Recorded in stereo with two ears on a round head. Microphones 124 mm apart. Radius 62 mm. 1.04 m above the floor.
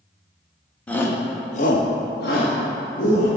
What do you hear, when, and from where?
0.9 s a shout: 10° left (ahead or behind), 1.1 m; by 3.3 s 65° left (ahead or behind), 2.5 m